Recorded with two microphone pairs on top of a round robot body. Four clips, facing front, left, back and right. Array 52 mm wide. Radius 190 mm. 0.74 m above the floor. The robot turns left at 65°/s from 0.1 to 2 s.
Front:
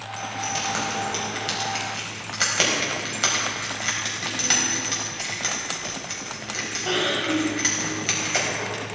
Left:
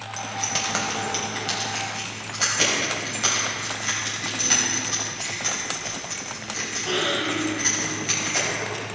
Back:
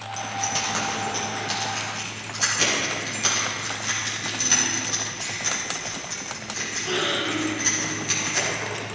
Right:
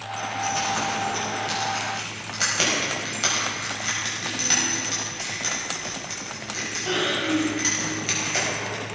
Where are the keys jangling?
115° left, 4 m; by 8.8 s 5° right, 4 m.